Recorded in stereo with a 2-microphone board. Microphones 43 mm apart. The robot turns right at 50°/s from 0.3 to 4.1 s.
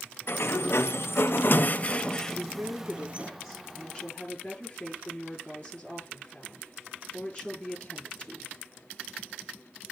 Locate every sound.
0.3 s a sliding door: 65° left, 0.5 m; by 3.3 s 145° right, 0.5 m
2.3 s a woman speaking: 65° right, 7.5 m; by 8.5 s 25° left, 7.5 m